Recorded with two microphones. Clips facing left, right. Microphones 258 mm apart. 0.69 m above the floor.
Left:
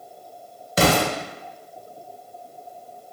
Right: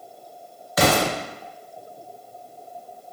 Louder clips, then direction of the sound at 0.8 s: Left 1 dB; 30° left (ahead or behind).